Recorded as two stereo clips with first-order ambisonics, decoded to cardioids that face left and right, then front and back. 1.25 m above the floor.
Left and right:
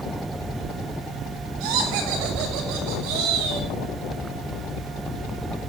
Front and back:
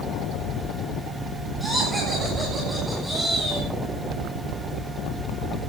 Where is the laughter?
95° right, 10 m.